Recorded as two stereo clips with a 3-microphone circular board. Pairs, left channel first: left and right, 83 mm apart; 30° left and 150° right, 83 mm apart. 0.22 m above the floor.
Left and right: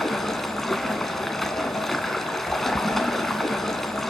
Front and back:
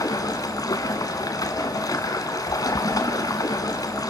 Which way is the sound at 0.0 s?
5° left.